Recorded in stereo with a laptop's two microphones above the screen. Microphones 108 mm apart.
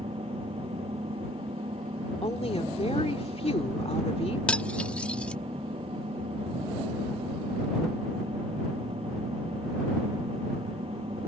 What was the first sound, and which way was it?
An engine running, 60° right (ahead or behind).